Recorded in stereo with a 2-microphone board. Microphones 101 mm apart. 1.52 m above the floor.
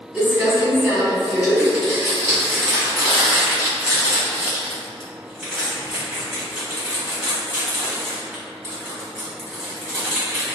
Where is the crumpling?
5° right (ahead or behind), 1.6 m.